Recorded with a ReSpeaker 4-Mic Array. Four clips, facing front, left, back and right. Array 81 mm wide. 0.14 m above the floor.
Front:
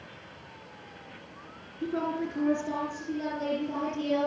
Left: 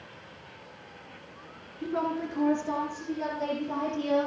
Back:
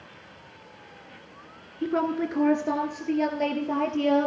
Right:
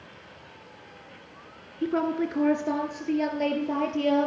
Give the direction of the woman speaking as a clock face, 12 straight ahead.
4 o'clock.